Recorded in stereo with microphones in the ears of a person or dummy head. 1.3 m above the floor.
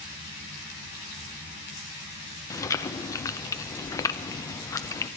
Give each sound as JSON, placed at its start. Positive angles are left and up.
{"t": 2.5, "sound": "chewing", "side_deg": 15, "distance_m": 0.6}